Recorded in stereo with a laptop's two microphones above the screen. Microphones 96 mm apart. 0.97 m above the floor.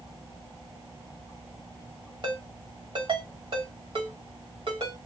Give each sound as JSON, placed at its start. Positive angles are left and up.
{"t": 2.2, "sound": "a ringtone", "side_deg": -60, "distance_m": 1.7}